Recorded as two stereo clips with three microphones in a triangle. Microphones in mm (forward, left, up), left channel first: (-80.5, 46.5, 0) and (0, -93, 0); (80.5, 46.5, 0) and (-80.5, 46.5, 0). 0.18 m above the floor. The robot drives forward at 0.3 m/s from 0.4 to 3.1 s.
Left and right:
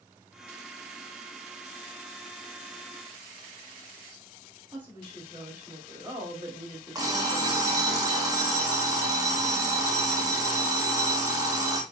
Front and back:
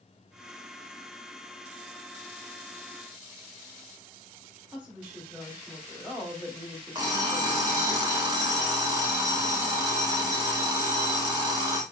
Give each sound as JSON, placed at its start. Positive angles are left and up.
{"t": 4.7, "sound": "a woman speaking", "azimuth_deg": -105, "distance_m": 1.6}
{"t": 7.0, "sound": "an alarm clock", "azimuth_deg": -125, "distance_m": 0.7}